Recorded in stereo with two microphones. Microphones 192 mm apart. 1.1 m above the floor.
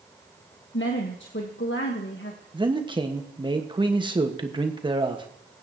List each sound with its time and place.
0.7 s a woman speaking: 70° left (ahead or behind), 1.3 m
2.5 s a man speaking: 25° right (ahead or behind), 1.4 m